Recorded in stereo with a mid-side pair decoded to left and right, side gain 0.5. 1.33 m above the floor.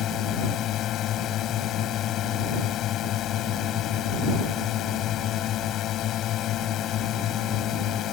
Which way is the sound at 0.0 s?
65° left.